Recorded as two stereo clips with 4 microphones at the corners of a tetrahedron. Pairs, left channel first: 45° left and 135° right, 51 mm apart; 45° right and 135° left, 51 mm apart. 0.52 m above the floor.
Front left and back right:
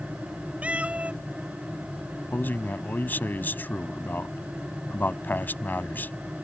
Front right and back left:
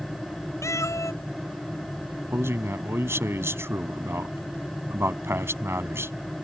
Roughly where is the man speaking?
Left.